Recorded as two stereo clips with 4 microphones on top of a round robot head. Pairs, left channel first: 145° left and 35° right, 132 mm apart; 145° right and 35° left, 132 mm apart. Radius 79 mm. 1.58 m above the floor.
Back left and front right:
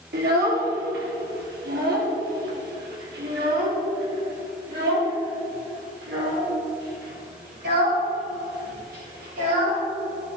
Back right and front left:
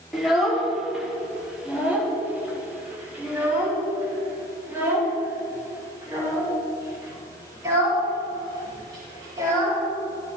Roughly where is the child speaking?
Ahead right.